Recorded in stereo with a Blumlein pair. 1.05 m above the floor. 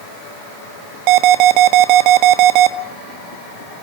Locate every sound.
1.1 s an alarm: 40° right, 1.3 m